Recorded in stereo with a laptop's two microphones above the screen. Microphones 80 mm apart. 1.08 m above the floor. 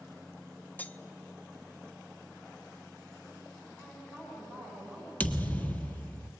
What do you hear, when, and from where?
0.8 s cutlery clinking: 20° left (ahead or behind), 0.7 m
3.8 s a woman speaking: 15° left (ahead or behind), 8 m
5.2 s a thud: 20° left (ahead or behind), 1.3 m